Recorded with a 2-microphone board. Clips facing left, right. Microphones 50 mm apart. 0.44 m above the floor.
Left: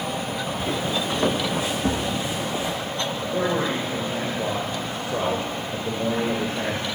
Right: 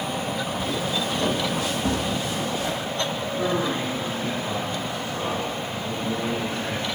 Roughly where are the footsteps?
Left.